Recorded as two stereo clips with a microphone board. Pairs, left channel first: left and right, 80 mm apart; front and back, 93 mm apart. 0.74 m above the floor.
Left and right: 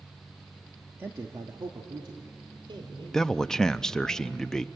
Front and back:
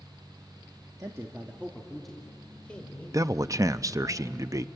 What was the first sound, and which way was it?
A man speaking, 145° right.